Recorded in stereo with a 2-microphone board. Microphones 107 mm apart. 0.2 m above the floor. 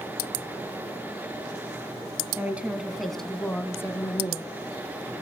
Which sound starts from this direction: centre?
A woman speaking, at 2.4 s.